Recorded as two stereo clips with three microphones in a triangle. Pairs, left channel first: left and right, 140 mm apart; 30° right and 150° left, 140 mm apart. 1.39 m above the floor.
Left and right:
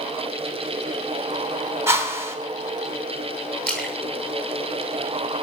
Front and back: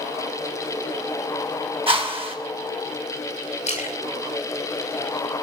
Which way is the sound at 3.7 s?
10° left.